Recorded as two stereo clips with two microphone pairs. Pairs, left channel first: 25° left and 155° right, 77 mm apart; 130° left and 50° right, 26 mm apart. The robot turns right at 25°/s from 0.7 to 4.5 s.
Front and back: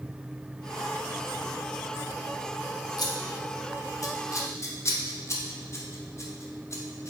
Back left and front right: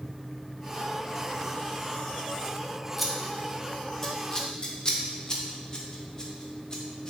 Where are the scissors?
35° left, 0.5 m; by 7.1 s 75° left, 0.5 m.